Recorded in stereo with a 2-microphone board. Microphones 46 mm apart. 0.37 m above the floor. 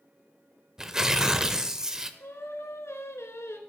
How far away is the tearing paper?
About 0.6 m.